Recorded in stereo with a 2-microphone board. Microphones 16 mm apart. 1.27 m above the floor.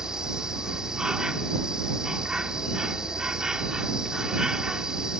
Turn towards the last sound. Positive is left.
turn(degrees=-45)  # may be behind; listen again after turning